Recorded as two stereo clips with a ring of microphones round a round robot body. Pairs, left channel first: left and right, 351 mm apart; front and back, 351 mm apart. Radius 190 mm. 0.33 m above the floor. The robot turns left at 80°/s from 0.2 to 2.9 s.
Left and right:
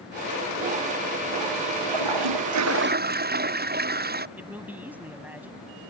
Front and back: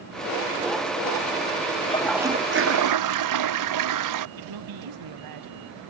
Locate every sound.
1.8 s a toilet flushing: 65° right; by 4.3 s 150° right
4.4 s a man speaking: 175° right